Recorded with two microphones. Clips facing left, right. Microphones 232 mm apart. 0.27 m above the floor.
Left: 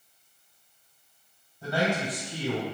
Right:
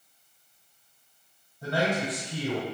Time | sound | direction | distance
1.6 | a man speaking | 20° right (ahead or behind) | 1.9 m